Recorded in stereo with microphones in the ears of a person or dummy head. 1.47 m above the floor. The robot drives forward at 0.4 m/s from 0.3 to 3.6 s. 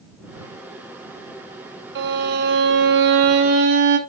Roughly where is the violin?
Right.